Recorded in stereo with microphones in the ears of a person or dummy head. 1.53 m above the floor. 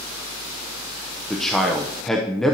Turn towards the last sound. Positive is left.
turn(degrees=5)  # may be behind; listen again after turning